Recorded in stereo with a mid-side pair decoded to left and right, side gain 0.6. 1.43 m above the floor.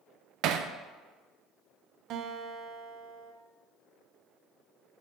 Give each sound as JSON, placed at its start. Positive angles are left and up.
{"t": 0.4, "sound": "hammering", "azimuth_deg": -65, "distance_m": 0.5}
{"t": 2.1, "sound": "a guitar", "azimuth_deg": -60, "distance_m": 1.0}